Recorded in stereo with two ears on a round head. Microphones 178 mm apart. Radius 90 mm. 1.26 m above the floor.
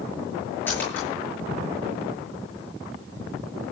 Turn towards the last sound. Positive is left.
turn(degrees=10)  # may be behind; listen again after turning